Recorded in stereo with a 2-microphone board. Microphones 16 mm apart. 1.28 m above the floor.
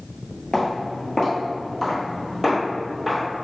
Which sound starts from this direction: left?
Footsteps, at 0.5 s.